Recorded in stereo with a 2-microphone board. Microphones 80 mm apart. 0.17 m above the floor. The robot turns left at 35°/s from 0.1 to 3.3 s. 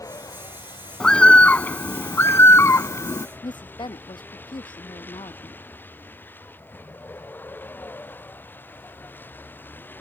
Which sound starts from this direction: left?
A woman speaking, at 3.4 s.